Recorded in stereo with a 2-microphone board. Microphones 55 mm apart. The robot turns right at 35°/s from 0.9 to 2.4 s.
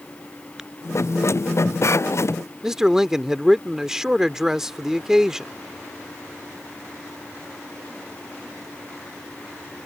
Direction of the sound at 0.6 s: 10° right (ahead or behind).